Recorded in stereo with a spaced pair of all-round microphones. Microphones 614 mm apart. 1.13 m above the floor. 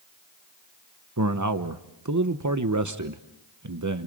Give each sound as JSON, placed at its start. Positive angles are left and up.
{"t": 1.2, "sound": "a man speaking", "side_deg": -30, "distance_m": 1.0}